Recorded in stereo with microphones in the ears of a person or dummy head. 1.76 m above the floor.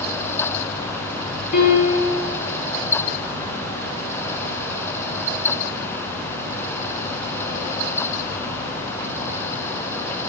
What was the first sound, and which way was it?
A piano, 50° left (ahead or behind).